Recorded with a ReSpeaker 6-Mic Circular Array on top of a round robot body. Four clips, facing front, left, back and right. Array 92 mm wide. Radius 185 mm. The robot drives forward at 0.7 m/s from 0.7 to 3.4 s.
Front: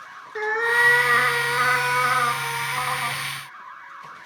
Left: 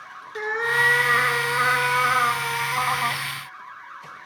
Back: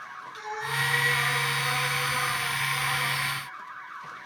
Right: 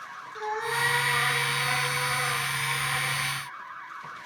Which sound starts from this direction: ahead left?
A cat meowing, at 0.3 s.